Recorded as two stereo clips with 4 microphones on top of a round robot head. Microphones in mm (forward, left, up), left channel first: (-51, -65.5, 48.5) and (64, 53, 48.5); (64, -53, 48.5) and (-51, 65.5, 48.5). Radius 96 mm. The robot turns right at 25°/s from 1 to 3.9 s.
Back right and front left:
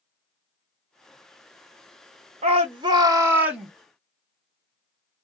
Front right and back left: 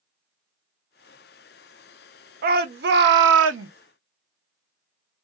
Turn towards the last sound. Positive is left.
turn(degrees=135)